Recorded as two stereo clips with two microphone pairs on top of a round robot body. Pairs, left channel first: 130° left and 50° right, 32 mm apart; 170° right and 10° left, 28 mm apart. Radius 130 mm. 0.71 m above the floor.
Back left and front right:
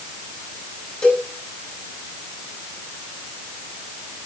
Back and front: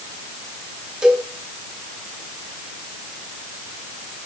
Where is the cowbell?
75° left, 4.5 m.